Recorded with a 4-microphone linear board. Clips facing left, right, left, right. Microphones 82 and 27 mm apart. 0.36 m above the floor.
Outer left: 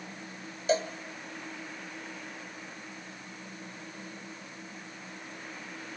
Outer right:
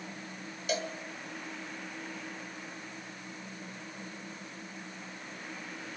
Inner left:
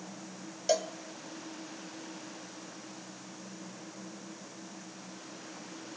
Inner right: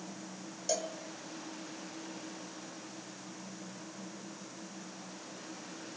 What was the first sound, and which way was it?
A cowbell, 35° left (ahead or behind).